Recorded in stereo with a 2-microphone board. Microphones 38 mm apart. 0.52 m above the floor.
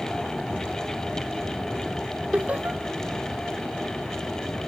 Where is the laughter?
45° right (ahead or behind), 1.2 m.